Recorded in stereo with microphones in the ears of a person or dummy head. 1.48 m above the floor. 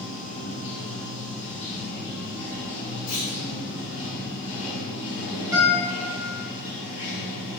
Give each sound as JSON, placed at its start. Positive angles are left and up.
{"t": 0.0, "sound": "running water", "side_deg": 40, "distance_m": 1.4}
{"t": 3.1, "sound": "a clunk", "side_deg": 70, "distance_m": 1.8}
{"t": 5.5, "sound": "a guitar", "side_deg": -20, "distance_m": 1.4}